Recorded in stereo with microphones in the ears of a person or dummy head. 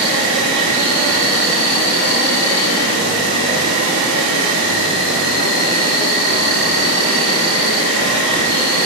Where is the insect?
65° right (ahead or behind), 6.5 m.